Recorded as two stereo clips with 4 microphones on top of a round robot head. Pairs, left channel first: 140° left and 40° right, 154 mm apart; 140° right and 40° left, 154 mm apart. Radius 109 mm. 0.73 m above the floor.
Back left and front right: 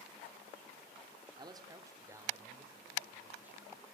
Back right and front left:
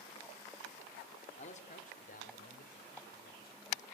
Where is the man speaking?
100° right, 2.5 m; by 3.8 s 120° right, 5.5 m.